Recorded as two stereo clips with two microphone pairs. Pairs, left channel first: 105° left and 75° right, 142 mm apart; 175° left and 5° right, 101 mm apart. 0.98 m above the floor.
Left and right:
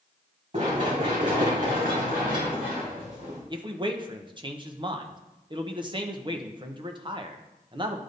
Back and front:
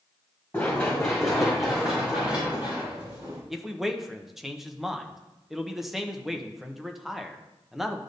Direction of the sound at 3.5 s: 90° right.